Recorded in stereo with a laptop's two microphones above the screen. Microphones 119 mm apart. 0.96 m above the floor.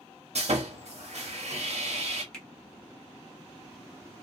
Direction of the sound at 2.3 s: 5° left (ahead or behind).